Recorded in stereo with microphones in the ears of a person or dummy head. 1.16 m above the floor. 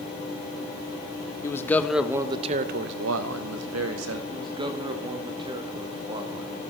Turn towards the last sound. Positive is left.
turn(degrees=-20)  # may be behind; listen again after turning